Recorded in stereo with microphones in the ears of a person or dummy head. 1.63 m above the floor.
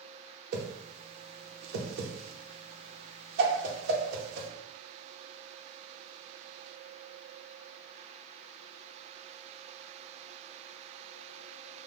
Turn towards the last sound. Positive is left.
turn(degrees=-65)  # may be behind; listen again after turning